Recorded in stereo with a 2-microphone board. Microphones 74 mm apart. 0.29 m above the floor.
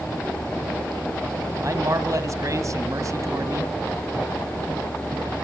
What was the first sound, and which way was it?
A man speaking, 45° right (ahead or behind).